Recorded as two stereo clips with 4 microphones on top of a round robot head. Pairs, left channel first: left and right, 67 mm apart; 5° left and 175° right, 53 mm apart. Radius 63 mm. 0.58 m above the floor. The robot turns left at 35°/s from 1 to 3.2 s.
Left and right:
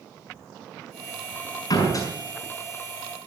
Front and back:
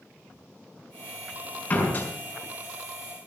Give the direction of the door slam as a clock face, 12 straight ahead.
10 o'clock.